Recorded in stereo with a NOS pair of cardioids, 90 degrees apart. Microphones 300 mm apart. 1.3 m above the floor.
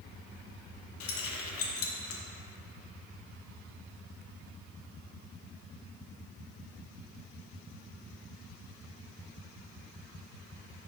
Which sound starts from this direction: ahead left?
Keys jangling, at 1.0 s.